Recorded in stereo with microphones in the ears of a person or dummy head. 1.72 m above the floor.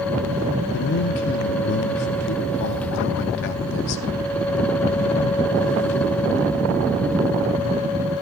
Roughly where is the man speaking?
Left.